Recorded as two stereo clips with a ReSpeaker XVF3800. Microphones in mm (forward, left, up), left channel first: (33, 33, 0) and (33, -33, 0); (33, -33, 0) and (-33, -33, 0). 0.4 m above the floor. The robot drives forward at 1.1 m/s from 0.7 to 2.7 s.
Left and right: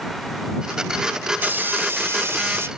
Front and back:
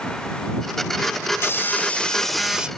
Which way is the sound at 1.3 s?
35° right.